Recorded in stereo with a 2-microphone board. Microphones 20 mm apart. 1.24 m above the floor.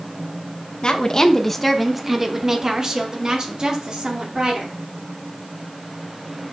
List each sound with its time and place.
0.8 s a woman speaking: 50° left (ahead or behind), 0.9 m; by 4.8 s 45° right (ahead or behind), 3 m